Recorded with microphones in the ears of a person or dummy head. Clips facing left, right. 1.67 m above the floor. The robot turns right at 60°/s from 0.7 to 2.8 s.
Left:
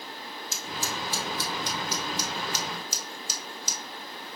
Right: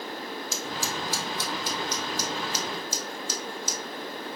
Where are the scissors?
65° right (ahead or behind), 1.4 m; by 3.8 s 65° left (ahead or behind), 1.4 m.